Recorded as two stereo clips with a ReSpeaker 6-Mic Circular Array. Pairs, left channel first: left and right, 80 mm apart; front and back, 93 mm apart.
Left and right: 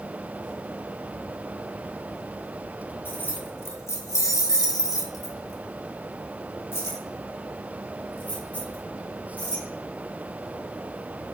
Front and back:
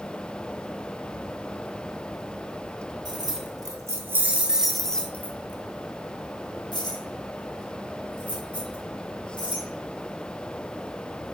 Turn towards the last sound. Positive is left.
turn(degrees=20)